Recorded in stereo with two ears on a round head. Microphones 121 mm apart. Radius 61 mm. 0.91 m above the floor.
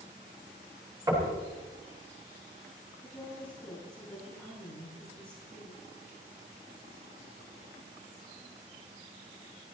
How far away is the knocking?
About 6 m.